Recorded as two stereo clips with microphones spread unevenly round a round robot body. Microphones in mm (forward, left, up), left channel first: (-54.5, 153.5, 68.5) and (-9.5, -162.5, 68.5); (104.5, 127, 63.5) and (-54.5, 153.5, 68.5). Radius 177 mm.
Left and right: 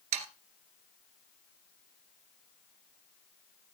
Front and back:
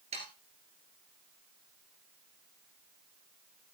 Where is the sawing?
120° right, 1.8 m.